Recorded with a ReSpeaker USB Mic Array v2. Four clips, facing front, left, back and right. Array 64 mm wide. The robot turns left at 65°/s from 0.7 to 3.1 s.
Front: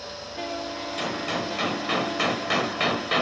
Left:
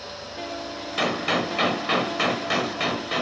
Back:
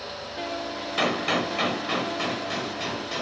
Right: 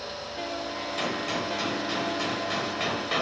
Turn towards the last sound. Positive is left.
turn(degrees=0)